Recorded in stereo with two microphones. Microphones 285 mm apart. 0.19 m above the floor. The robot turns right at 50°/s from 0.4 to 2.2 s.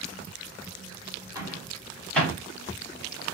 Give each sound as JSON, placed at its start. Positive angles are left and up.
{"t": 1.4, "sound": "a microwave", "side_deg": -15, "distance_m": 1.3}